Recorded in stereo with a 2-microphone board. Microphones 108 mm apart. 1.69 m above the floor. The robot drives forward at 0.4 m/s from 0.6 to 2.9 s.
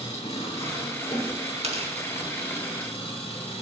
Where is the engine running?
65° left (ahead or behind), 8 m; by 3.6 s 60° left (ahead or behind), 8.5 m.